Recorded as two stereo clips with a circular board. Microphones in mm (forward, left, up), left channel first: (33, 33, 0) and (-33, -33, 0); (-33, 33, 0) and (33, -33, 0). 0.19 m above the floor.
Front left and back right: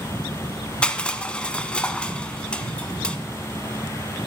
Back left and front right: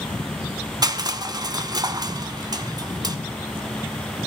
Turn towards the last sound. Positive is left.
turn(degrees=-30)